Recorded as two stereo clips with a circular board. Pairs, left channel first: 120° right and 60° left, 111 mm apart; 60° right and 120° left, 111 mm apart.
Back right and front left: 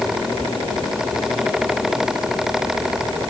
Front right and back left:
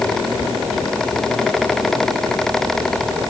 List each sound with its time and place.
Only background noise.